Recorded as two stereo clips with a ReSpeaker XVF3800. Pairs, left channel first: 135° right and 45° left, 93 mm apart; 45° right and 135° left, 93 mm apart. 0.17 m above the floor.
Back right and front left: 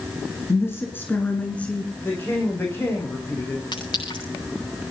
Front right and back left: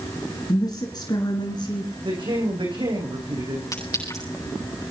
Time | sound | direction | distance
0.5 | a woman speaking | 80° right | 2.5 m
2.0 | a woman speaking | 160° left | 7.5 m
3.7 | a clink | 95° right | 9.5 m